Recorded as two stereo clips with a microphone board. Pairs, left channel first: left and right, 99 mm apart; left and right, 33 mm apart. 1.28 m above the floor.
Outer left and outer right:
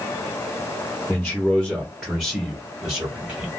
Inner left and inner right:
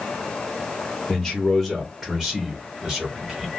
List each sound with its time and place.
1.1 s a man speaking: 5° left (ahead or behind), 0.8 m; by 3.5 s 35° right (ahead or behind), 1.7 m